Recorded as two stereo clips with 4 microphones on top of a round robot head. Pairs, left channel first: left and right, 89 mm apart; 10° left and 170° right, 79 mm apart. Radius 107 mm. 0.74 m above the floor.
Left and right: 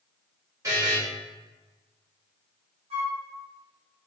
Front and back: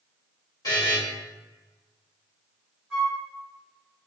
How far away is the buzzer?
About 1.5 m.